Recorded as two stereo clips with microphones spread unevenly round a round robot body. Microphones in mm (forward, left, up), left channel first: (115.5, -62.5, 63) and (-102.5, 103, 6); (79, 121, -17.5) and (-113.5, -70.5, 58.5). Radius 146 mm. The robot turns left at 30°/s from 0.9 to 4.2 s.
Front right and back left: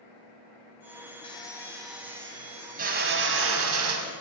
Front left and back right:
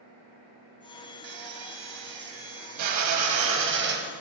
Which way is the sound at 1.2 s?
110° right.